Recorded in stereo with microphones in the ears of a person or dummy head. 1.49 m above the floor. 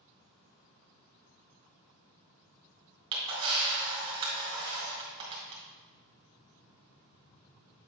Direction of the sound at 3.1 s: 25° right (ahead or behind).